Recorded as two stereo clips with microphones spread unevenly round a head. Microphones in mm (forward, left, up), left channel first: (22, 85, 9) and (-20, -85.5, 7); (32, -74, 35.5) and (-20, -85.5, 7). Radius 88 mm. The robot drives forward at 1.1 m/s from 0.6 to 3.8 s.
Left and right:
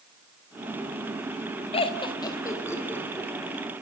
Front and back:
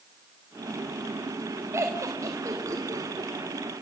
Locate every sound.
1.7 s laughter: 135° left, 1.7 m; by 3.3 s 160° left, 3 m